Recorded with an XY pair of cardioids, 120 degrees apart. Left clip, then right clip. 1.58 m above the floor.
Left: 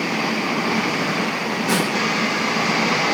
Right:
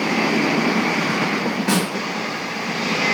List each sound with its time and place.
1.7 s a snare drum: 30° right, 1.4 m